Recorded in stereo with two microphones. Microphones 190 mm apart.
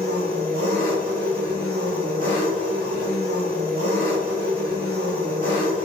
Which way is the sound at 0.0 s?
55° right (ahead or behind).